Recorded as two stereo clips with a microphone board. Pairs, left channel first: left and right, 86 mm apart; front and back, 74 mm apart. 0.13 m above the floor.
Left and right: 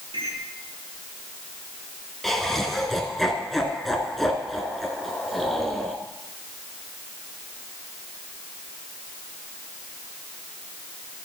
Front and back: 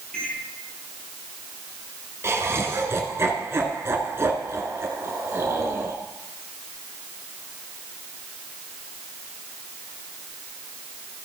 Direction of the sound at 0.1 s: 75° right.